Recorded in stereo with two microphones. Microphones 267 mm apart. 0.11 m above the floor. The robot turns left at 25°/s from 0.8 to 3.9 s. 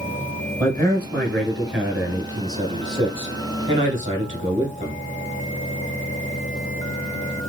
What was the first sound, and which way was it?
A man speaking, 20° left.